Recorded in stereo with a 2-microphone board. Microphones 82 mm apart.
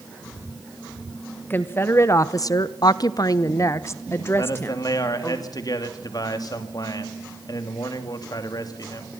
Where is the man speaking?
50° left (ahead or behind), 2.5 m.